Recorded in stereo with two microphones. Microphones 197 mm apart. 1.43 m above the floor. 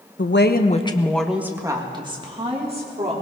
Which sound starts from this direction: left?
A woman speaking, at 0.2 s.